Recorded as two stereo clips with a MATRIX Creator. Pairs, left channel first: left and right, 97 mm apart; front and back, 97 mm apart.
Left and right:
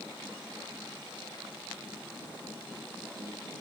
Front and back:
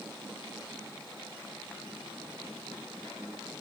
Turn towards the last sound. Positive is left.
No sound to turn to.